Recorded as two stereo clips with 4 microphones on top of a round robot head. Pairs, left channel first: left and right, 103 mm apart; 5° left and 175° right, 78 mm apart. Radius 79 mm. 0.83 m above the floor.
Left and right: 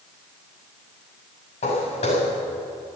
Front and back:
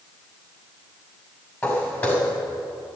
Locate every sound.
1.6 s footsteps: 70° left, 6 m